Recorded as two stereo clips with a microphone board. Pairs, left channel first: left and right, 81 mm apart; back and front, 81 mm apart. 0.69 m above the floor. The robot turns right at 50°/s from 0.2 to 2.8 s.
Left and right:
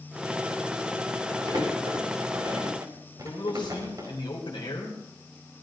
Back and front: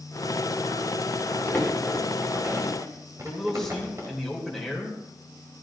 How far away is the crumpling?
About 4.5 m.